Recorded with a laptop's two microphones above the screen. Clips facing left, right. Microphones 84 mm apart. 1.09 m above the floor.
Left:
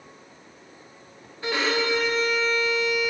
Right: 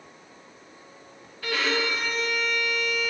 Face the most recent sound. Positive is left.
turn(degrees=20)  # may be behind; listen again after turning